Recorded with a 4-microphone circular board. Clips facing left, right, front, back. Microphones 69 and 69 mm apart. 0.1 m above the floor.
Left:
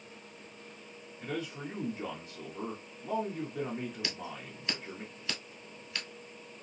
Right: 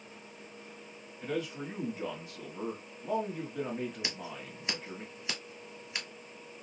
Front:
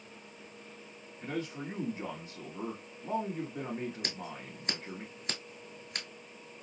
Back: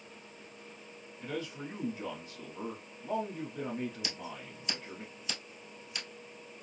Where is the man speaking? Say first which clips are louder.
Right 2 dB, front 2 dB; 5° left, 1.1 m.